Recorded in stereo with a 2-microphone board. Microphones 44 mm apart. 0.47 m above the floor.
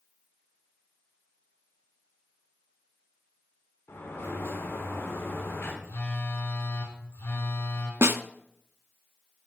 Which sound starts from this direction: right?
A snare drum, at 8.0 s.